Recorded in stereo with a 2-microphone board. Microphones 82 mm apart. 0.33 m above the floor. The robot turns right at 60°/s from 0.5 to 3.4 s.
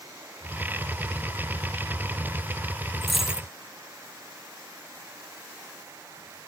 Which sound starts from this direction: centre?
A dropped coin, at 3.0 s.